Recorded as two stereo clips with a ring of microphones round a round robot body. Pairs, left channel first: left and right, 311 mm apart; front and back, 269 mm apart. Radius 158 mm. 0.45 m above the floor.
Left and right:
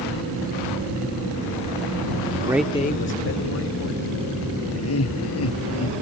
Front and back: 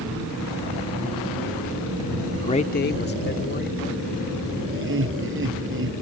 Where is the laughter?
135° left.